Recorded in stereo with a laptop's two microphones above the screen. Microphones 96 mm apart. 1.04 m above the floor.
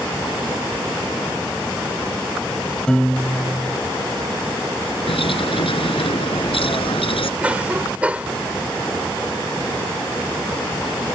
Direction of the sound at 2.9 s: 10° left (ahead or behind).